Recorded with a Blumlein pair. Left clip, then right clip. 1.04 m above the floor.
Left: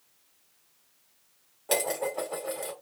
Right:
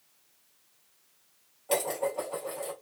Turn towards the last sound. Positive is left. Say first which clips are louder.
# left 1 dB
turn(degrees=25)